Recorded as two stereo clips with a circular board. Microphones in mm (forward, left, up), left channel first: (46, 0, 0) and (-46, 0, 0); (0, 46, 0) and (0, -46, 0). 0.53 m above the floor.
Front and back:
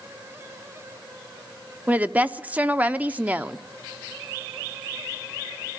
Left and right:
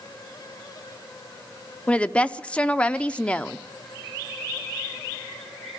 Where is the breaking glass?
I don't hear breaking glass.